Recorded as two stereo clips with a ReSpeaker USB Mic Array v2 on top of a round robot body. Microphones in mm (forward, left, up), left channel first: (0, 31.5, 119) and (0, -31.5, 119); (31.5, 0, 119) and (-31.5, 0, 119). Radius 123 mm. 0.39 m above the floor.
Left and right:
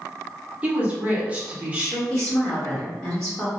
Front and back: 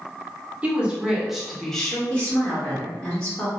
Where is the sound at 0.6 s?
140° right, 1.2 m; by 2.0 s 55° right, 1.1 m.